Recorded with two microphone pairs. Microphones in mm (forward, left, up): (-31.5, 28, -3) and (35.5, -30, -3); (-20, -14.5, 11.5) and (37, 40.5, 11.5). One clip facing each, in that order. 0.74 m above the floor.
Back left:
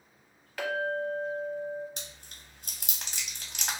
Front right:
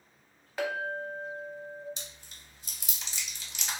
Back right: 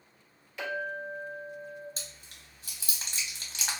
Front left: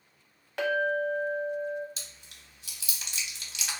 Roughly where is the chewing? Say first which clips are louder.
Back left 2 dB, back right 2 dB; behind.